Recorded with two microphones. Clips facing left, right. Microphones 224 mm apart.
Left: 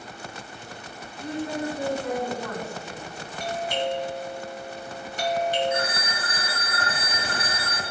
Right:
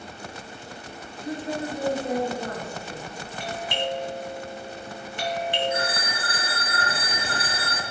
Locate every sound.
1.2 s a woman speaking: 30° right (ahead or behind), 3 m
3.4 s a doorbell: 40° left (ahead or behind), 2 m
5.7 s a phone ringing: 30° right (ahead or behind), 2.5 m